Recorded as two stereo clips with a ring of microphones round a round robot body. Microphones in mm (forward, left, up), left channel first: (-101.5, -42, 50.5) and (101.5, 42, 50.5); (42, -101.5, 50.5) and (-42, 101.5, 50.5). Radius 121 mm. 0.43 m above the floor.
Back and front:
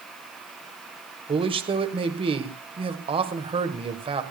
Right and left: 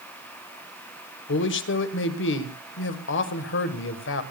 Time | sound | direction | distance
1.3 | a man speaking | 40° right | 1.6 m